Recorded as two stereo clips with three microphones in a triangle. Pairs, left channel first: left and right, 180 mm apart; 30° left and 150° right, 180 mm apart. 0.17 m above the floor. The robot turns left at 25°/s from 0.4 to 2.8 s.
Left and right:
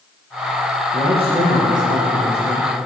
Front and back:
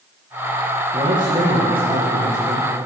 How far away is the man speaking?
About 2.5 m.